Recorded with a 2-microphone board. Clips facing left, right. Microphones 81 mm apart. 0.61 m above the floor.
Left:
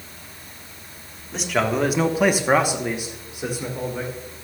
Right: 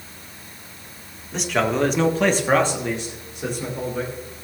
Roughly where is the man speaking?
Centre.